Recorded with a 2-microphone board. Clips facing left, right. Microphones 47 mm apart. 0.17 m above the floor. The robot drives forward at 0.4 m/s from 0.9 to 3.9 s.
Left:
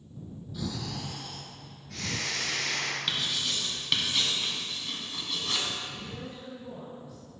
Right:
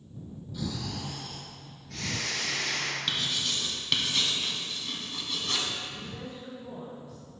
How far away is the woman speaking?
About 1.7 m.